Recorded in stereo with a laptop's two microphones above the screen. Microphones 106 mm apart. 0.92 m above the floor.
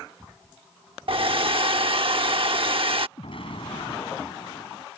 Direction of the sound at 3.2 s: 60° left (ahead or behind).